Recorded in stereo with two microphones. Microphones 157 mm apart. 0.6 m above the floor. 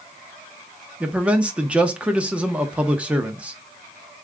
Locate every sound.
1.0 s a man speaking: 5° right (ahead or behind), 0.7 m